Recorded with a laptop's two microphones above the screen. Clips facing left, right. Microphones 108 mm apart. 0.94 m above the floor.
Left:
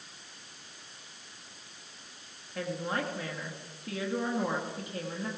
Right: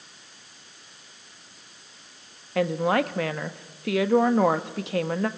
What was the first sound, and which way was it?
A woman speaking, 75° right (ahead or behind).